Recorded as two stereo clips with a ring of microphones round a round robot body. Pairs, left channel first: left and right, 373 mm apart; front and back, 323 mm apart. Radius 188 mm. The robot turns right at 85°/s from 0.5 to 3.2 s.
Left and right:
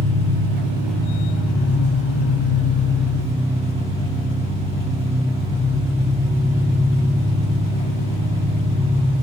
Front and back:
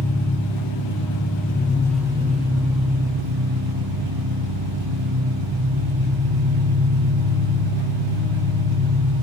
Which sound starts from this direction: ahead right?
An engine running, at 0.0 s.